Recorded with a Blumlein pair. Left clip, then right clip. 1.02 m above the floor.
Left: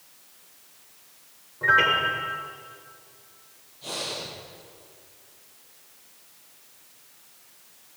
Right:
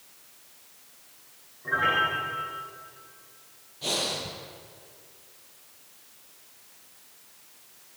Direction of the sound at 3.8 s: 65° right.